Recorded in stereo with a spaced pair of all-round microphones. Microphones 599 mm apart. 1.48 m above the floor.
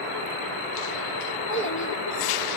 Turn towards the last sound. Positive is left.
turn(degrees=20)  # may be behind; listen again after turning